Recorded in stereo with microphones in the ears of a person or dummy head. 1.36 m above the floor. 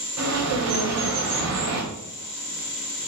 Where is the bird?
75° right (ahead or behind), 0.9 m.